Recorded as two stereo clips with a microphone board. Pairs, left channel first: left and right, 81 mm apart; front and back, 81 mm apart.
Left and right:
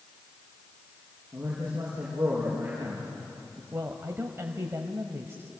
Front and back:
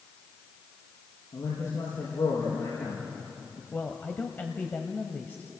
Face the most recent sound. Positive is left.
turn(degrees=-50)